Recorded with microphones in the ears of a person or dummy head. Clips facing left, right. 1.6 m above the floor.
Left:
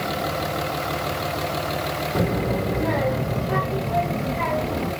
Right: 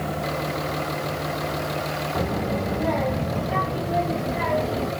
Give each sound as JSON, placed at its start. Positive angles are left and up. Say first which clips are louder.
{"t": 2.1, "sound": "a child speaking", "louder": "left 3 dB", "side_deg": 30, "distance_m": 1.2}